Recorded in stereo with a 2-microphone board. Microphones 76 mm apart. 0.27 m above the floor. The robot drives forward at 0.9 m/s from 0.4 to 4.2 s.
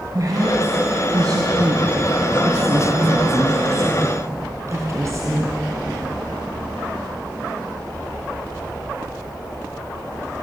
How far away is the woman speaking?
About 3 m.